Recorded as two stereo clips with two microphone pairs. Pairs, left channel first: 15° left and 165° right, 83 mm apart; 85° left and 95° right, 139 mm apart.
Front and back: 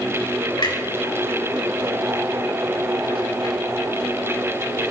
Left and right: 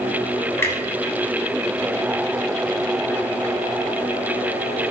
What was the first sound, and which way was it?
A clunk, 10° left.